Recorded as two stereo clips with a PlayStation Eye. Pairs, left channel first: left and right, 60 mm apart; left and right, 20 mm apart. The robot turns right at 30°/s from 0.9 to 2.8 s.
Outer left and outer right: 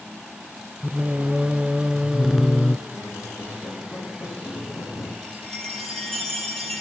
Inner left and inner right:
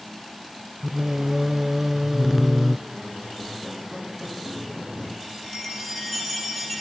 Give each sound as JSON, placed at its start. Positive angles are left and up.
{"t": 0.8, "sound": "singing", "azimuth_deg": -40, "distance_m": 1.0}
{"t": 2.9, "sound": "a squeak", "side_deg": 55, "distance_m": 6.0}
{"t": 5.2, "sound": "a chime", "side_deg": 5, "distance_m": 5.0}